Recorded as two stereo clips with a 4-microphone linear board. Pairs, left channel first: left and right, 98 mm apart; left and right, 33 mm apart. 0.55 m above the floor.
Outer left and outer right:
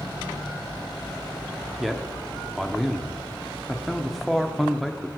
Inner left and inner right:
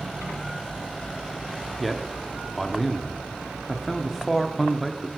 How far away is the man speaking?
About 0.8 m.